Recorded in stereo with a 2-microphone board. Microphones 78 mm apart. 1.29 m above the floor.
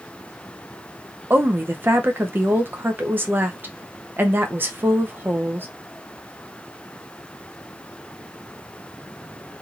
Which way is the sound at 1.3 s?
25° right (ahead or behind).